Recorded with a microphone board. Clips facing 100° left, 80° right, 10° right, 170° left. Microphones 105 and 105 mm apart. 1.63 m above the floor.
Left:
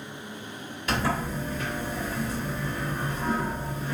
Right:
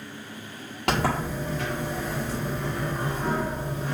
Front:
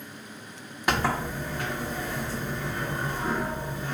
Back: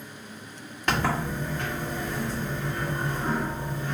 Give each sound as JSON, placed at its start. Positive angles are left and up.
{"t": 0.9, "sound": "a sliding door", "azimuth_deg": -90, "distance_m": 1.6}